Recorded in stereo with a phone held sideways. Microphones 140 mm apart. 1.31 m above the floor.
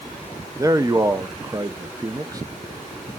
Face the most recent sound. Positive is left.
turn(degrees=-25)  # may be behind; listen again after turning